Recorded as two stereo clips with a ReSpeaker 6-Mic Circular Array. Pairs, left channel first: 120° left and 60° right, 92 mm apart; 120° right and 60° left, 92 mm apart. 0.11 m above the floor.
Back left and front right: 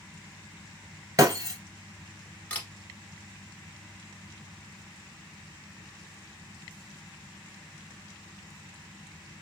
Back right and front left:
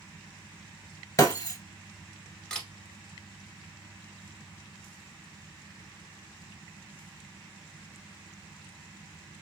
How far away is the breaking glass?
About 0.8 m.